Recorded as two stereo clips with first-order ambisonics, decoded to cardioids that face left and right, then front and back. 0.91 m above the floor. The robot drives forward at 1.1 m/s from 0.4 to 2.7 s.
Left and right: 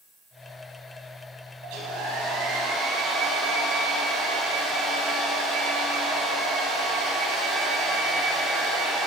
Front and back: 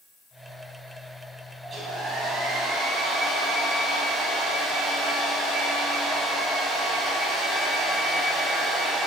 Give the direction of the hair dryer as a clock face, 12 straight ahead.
4 o'clock.